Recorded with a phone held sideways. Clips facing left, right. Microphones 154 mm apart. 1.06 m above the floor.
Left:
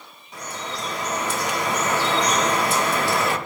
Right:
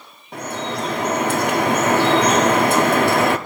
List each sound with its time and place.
0.3 s dripping: 70° right (ahead or behind), 1.0 m